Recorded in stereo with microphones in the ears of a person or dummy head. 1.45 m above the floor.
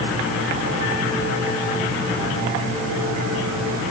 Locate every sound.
Only background noise.